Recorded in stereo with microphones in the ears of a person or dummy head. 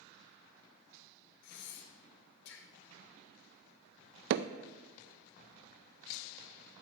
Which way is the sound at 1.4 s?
55° left (ahead or behind).